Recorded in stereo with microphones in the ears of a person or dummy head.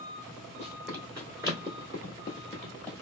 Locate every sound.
0.6 s running footsteps: 5° left (ahead or behind), 1.4 m; by 2.9 s 15° left (ahead or behind), 1.6 m